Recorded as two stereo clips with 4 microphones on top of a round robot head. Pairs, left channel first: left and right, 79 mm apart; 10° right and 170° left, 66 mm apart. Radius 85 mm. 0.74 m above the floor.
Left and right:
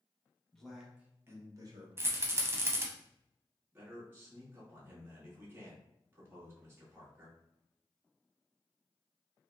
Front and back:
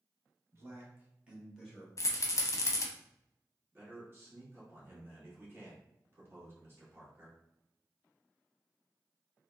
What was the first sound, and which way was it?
A man speaking, 170° left.